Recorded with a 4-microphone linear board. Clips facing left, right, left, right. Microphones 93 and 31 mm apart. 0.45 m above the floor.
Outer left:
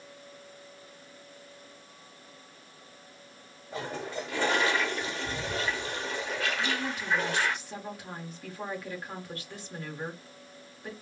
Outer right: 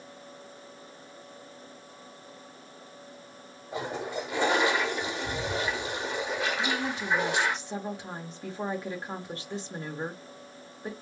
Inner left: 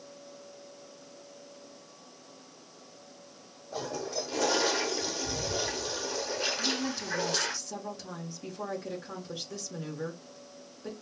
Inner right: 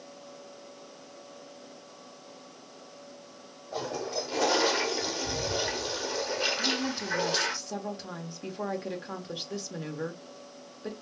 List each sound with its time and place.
3.7 s a toilet flushing: 15° right (ahead or behind), 0.5 m
6.6 s a woman speaking: 25° right (ahead or behind), 1.0 m